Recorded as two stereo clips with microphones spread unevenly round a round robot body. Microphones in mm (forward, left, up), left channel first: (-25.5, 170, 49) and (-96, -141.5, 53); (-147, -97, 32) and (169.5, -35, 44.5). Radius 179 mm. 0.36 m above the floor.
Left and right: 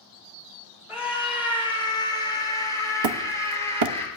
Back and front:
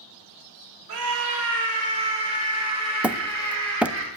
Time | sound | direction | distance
0.9 | a scream | 15° right | 5 m
3.0 | hammering | 75° right | 0.7 m